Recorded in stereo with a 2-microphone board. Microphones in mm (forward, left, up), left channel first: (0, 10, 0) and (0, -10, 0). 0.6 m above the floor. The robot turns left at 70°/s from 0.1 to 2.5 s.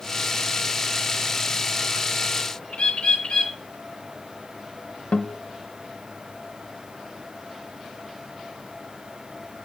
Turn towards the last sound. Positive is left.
turn(degrees=80)